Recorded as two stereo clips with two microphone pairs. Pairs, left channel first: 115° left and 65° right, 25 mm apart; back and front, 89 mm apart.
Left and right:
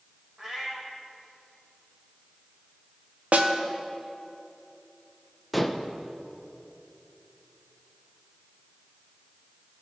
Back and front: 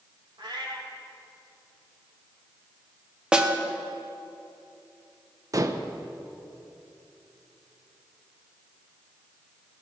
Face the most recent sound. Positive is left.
turn(degrees=25)